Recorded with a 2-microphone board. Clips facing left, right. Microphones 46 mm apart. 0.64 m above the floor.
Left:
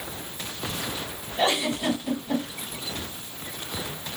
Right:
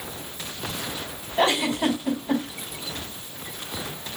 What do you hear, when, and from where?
1.4 s a giggle: 80° right, 3.5 m